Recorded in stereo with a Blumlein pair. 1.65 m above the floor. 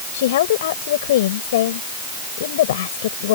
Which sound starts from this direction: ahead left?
A woman speaking, at 0.1 s.